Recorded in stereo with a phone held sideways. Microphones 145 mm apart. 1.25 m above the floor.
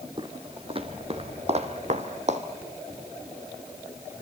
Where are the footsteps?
35° right (ahead or behind), 2 m; by 2.4 s 55° right (ahead or behind), 2 m.